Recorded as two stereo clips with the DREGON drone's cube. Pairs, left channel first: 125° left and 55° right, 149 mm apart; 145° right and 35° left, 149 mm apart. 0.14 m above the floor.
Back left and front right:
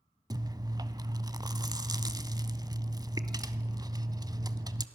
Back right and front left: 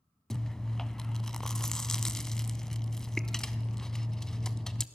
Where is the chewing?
65° right, 0.8 m.